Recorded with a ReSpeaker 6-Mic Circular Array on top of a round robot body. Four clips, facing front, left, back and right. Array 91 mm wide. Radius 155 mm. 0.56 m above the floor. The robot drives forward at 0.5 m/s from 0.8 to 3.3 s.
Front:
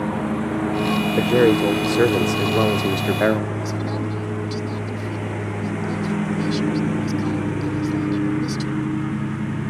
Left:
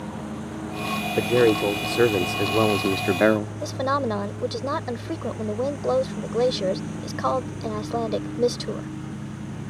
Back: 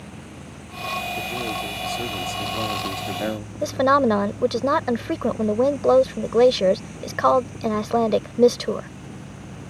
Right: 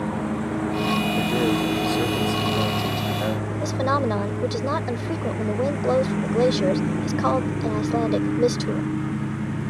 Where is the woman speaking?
Straight behind.